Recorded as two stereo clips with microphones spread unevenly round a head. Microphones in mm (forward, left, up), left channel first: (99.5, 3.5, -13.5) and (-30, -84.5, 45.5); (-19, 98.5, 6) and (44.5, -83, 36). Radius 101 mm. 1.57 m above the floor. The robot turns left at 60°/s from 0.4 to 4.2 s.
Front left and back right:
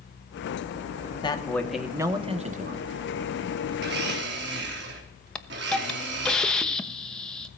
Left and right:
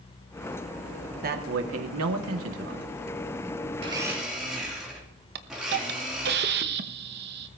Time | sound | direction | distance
1.2 | a man speaking | 25° right | 1.9 m
3.8 | a blender | 130° right | 3 m
5.3 | a hiss | 65° right | 1.1 m